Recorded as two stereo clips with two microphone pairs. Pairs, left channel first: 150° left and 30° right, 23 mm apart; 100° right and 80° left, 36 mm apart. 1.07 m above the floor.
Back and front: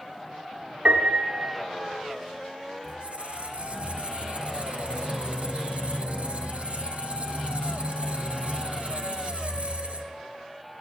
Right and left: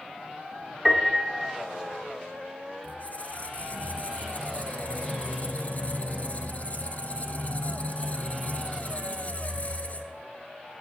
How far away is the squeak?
About 0.8 m.